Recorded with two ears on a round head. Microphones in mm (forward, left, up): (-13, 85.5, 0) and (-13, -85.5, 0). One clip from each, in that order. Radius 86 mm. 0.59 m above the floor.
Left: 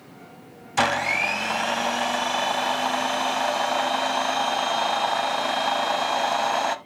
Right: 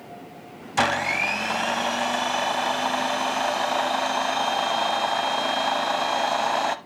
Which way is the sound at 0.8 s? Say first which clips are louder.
Even; 5° left (ahead or behind).